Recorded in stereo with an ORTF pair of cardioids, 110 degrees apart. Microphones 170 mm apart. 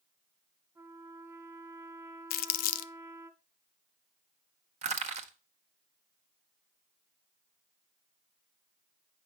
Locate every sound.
0.8 s a trumpet: 15° right, 1.9 m
2.3 s crumpling: 65° left, 0.5 m
4.8 s crushing: 40° right, 1.5 m